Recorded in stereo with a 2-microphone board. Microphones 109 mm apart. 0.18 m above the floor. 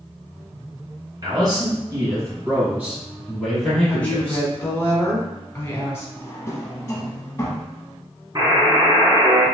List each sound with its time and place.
1.2 s a man speaking: 40° right (ahead or behind), 2.0 m; by 4.5 s 25° left (ahead or behind), 1.4 m
3.9 s a woman speaking: 25° left (ahead or behind), 1.3 m
6.2 s a drawer: 25° left (ahead or behind), 0.6 m
8.3 s a buzzer: 40° right (ahead or behind), 1.8 m